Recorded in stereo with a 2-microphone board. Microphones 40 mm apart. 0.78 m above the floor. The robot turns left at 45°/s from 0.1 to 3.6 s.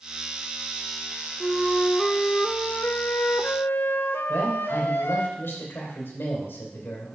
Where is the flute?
170° right, 0.6 m; by 5.3 s 90° left, 0.6 m.